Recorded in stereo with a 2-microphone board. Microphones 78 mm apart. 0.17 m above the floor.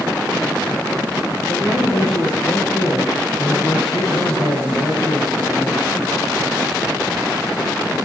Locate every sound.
1.5 s a man speaking: 65° left (ahead or behind), 4 m